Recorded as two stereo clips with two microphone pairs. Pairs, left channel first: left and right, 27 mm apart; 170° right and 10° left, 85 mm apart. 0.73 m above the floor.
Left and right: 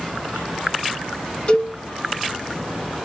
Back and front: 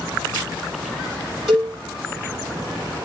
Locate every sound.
1.5 s a cowbell: 100° left, 1.6 m